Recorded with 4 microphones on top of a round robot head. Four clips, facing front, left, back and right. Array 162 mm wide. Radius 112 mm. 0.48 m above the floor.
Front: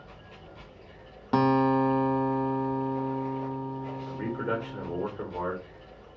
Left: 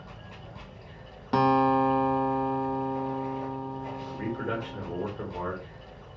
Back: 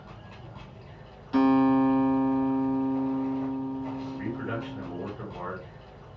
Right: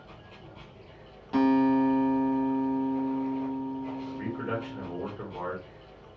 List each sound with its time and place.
0.0 s running water: 135° left, 1.5 m
1.3 s a guitar: 35° left, 0.5 m
4.1 s a man speaking: 20° left, 1.3 m